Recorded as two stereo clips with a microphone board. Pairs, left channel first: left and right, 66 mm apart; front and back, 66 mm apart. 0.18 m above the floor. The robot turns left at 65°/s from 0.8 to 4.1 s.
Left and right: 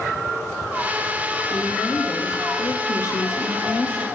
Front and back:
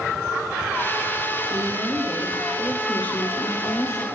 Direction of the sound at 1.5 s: 170° left.